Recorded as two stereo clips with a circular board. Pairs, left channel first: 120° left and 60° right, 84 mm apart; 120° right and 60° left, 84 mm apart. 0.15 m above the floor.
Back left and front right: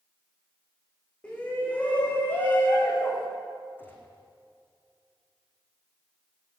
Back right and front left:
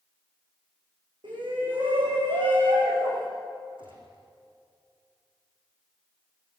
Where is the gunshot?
55° left, 4.5 m.